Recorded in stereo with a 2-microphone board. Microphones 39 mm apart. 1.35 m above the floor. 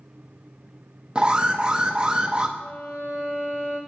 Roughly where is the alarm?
Right.